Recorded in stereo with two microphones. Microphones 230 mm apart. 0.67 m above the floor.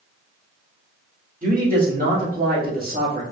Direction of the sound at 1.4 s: 35° right (ahead or behind).